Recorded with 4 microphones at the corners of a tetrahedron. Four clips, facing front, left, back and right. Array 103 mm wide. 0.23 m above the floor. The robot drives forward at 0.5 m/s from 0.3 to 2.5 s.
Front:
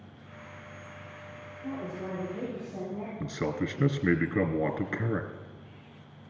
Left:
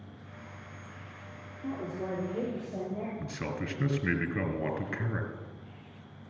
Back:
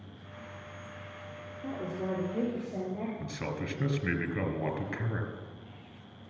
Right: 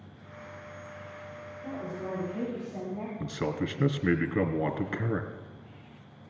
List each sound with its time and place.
1.6 s a woman speaking: 150° left, 5.5 m; by 3.1 s 155° left, 6 m
3.2 s a man speaking: 45° right, 1.4 m